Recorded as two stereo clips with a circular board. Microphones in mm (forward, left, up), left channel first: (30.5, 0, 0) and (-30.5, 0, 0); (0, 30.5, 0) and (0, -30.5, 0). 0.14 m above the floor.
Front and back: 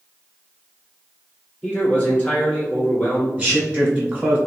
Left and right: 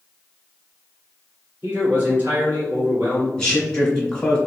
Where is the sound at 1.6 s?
55° right, 1.7 m.